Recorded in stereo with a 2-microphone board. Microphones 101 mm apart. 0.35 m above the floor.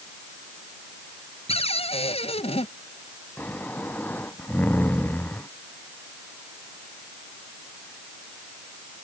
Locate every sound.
1.5 s a cupboard door: 80° left
3.4 s snoring: 15° left (ahead or behind)